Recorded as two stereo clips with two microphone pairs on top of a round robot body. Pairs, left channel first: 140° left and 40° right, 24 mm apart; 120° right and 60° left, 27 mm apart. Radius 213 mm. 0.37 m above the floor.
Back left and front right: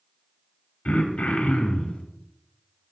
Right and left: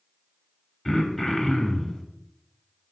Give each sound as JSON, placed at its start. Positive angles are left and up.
{"t": 0.8, "sound": "throat clearing", "azimuth_deg": 160, "distance_m": 0.7}